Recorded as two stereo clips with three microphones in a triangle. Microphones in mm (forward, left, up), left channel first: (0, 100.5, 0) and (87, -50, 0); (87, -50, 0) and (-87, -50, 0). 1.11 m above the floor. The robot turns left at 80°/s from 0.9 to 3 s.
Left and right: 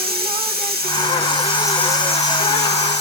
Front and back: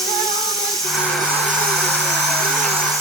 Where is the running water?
90° right, 6.5 m; by 3.0 s 105° left, 6.5 m.